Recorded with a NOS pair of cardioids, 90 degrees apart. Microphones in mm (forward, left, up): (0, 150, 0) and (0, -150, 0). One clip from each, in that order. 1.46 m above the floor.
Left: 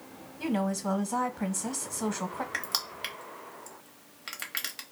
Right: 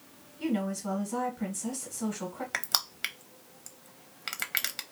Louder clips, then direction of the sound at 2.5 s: Right 6 dB; 20° right.